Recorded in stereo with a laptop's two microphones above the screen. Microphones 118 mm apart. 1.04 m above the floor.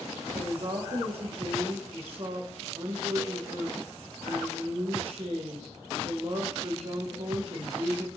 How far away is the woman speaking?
About 0.8 m.